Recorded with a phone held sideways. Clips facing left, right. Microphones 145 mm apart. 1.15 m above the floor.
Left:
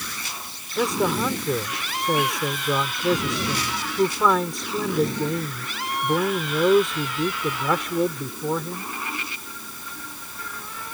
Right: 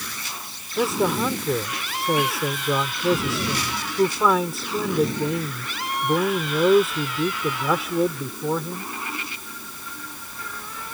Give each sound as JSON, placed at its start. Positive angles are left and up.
{"t": 0.8, "sound": "a man speaking", "side_deg": -5}